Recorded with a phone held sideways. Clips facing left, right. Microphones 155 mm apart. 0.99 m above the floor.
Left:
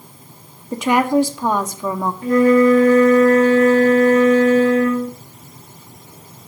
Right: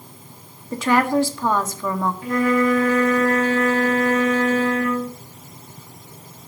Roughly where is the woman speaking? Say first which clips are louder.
Left 3 dB; centre.